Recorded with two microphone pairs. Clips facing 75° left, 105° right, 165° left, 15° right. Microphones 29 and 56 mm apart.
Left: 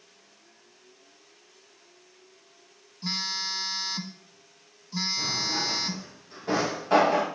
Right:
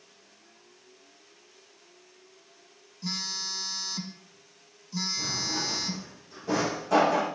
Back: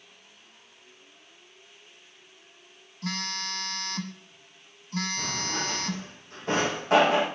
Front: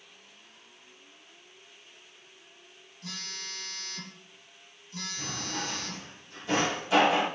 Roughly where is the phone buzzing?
Behind left.